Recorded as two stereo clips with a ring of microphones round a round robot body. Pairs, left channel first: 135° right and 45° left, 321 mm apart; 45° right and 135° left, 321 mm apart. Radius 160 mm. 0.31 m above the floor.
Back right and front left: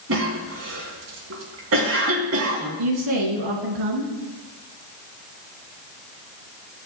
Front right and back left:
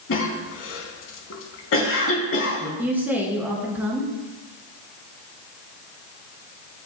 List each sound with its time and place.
0.1 s a cough: straight ahead, 3 m
2.8 s a woman speaking: 50° left, 3 m